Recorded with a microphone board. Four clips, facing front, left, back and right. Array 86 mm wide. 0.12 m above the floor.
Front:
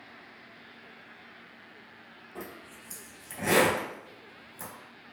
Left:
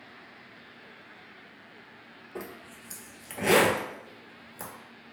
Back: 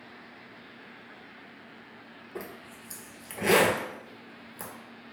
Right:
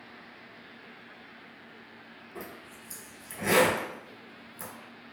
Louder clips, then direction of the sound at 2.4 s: Left 3 dB, back 2 dB; 135° left.